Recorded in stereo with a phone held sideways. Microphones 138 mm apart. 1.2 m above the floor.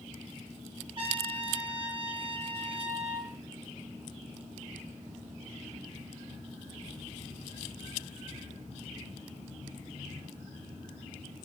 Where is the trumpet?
40° right (ahead or behind), 4.5 m.